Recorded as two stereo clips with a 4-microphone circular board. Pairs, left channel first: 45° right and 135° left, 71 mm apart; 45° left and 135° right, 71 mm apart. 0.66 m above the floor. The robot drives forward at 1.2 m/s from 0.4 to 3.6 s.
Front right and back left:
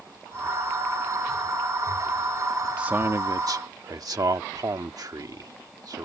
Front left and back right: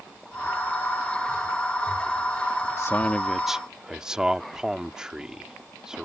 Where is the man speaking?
65° left; by 6.1 s 145° left.